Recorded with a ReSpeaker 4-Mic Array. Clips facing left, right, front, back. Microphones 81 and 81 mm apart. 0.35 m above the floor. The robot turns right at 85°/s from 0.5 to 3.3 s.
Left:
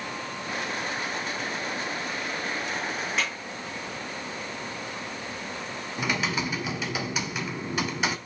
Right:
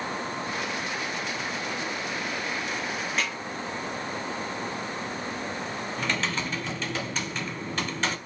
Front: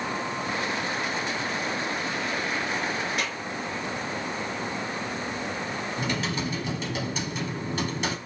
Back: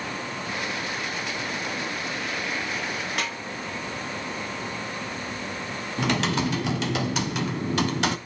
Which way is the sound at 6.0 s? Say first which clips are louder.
Left 3 dB, back 7 dB; 170° left.